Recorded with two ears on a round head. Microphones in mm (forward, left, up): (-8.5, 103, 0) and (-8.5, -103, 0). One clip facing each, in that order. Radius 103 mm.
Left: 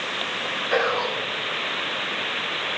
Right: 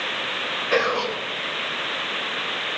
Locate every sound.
0.7 s whispering: 40° right (ahead or behind), 0.7 m